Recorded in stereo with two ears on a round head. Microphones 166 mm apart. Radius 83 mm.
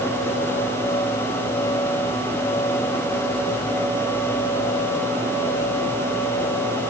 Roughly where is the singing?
No singing in this recording.